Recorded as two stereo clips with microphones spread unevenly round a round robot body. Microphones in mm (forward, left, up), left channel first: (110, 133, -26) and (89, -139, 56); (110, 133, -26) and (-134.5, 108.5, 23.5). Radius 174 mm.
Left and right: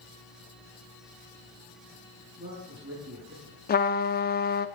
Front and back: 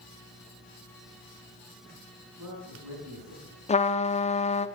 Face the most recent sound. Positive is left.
turn(degrees=55)